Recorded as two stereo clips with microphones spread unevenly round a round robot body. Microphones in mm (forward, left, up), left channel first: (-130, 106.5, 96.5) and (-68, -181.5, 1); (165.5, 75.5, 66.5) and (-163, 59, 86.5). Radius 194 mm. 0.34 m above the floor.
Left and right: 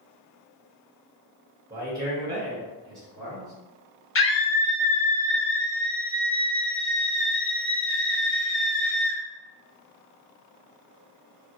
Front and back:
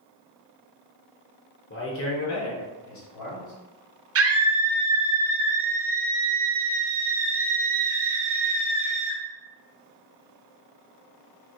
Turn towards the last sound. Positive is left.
turn(degrees=155)